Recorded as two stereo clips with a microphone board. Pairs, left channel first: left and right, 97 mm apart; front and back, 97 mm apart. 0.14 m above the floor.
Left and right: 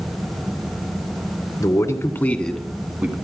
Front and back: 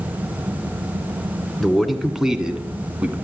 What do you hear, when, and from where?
1.6 s a man speaking: 85° left, 1.4 m; by 3.1 s 125° right, 1.2 m